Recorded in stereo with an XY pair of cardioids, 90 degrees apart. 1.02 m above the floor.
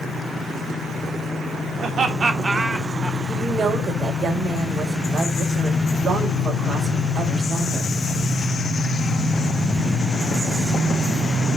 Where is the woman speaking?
55° right, 5 m.